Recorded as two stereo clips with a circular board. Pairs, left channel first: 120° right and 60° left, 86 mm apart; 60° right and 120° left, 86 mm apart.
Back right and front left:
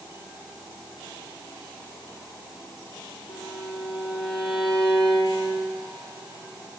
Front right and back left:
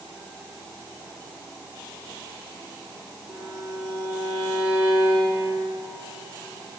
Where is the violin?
115° right, 4.5 m.